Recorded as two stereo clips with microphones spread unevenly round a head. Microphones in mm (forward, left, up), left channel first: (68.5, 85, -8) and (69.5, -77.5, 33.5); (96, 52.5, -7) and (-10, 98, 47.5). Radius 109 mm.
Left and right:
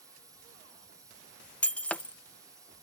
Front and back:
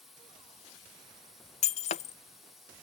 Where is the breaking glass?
10° right.